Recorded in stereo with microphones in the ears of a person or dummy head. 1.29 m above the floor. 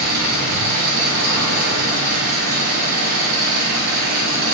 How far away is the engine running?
About 1.1 m.